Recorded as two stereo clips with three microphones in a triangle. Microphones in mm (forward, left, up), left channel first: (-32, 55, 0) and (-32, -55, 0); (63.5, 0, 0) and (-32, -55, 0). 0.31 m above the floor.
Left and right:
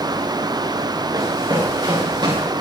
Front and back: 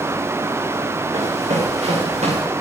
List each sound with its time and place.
1.1 s running footsteps: 145° right, 6 m; by 2.4 s 135° right, 6.5 m